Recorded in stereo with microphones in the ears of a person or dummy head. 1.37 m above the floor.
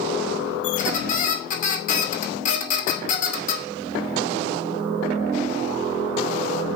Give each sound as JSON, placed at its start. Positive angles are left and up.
{"t": 0.6, "sound": "a squeak", "side_deg": 50, "distance_m": 2.5}